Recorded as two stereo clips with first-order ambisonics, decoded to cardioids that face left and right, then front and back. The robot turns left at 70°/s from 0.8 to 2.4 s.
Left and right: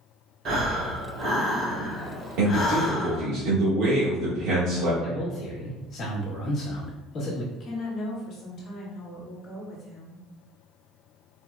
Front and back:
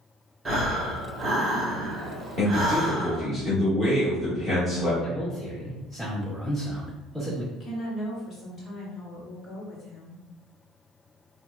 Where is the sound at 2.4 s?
70° right, 1.5 m; by 4.9 s 75° right, 1.5 m.